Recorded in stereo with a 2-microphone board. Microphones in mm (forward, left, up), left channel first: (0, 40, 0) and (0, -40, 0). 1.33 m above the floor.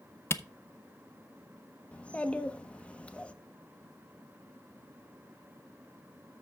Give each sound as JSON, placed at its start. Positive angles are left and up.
{"t": 0.3, "sound": "a camera shutter", "side_deg": 30, "distance_m": 0.6}
{"t": 1.9, "sound": "a child speaking", "side_deg": 15, "distance_m": 1.0}